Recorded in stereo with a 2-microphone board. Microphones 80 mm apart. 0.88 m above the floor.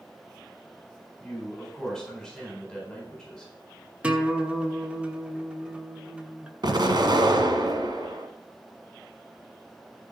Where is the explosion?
60° right (ahead or behind), 1.5 m.